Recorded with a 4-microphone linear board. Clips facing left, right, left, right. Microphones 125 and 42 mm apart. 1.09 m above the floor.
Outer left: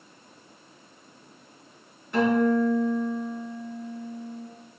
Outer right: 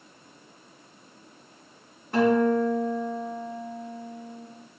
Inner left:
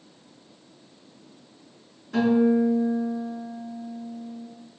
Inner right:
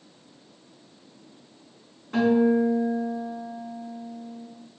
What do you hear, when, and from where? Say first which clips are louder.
2.1 s a guitar: outer right 1 dB, even; 45° right (ahead or behind), 3.5 m